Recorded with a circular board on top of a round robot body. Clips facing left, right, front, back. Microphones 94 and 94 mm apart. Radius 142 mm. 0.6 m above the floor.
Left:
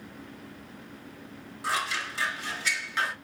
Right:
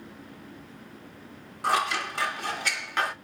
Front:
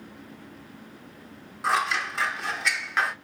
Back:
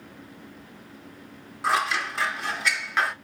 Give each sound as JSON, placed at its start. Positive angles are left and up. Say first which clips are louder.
{"t": 1.6, "sound": "scissors", "louder": "right 5 dB, back 1 dB", "azimuth_deg": -90, "distance_m": 1.0}